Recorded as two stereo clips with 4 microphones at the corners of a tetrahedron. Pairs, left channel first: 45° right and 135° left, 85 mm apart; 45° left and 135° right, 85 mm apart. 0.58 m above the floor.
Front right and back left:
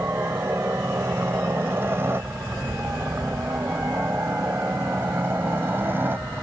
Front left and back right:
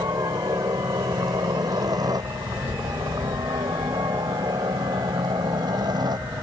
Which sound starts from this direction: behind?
A helicopter, at 0.0 s.